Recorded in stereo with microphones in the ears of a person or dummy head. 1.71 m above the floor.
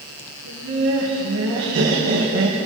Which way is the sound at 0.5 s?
65° right (ahead or behind).